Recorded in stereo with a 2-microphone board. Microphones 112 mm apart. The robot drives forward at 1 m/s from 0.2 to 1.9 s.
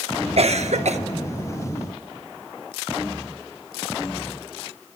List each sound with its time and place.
0.4 s a cough: 65° right (ahead or behind), 1.1 m; by 1.0 s 80° right, 1.1 m